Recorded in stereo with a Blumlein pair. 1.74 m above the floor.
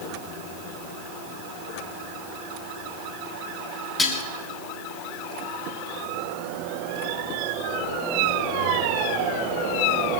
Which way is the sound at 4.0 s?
15° left.